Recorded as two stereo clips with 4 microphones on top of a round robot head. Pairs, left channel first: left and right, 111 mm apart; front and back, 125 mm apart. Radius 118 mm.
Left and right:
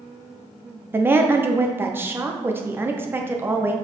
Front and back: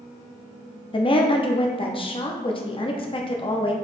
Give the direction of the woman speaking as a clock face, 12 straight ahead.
1 o'clock.